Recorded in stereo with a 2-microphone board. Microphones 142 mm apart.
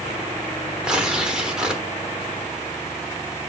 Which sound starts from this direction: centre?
Tearing paper, at 0.8 s.